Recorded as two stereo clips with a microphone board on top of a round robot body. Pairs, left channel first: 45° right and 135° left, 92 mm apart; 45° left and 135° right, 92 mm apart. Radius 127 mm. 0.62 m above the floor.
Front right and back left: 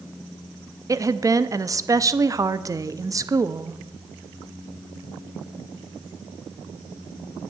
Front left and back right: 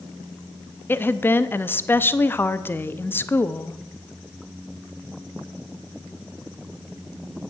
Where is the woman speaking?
100° left, 0.7 m.